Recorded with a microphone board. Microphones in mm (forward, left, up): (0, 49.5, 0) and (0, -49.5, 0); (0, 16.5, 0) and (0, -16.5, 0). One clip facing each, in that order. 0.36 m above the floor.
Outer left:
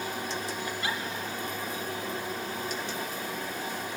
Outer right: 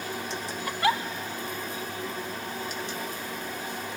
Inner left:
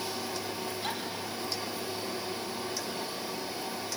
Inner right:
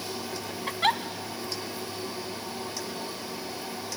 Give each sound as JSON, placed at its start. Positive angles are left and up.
{"t": 0.7, "sound": "a giggle", "side_deg": -75, "distance_m": 0.9}